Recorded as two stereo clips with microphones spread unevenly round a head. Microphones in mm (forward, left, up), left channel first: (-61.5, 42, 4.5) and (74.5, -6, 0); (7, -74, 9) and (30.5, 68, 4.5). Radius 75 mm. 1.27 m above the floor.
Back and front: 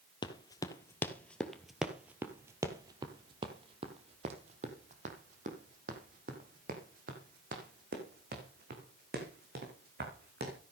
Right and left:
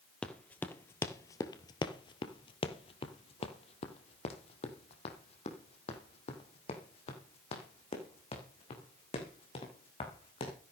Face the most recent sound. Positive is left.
turn(degrees=-50)